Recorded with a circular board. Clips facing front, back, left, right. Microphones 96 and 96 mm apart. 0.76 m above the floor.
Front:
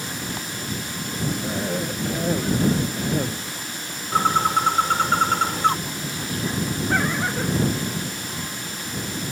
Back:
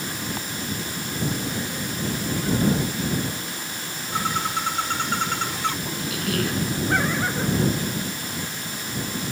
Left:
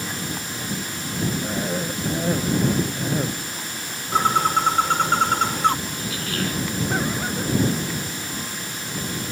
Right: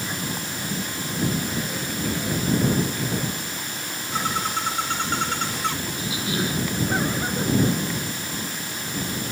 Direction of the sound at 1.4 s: 40° left.